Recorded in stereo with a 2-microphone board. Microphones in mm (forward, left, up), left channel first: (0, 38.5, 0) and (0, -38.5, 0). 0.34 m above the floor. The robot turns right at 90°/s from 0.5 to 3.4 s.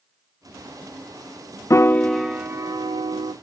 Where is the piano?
135° left, 0.5 m; by 3.3 s 75° right, 0.5 m.